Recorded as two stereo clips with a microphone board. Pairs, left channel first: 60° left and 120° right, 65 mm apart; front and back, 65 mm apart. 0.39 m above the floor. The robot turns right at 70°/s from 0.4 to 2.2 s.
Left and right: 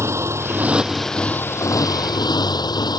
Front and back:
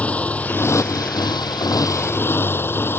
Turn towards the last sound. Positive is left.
turn(degrees=55)